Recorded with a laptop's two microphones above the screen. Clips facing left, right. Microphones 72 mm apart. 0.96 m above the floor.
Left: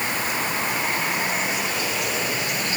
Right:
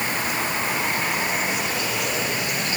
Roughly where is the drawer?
I don't hear a drawer.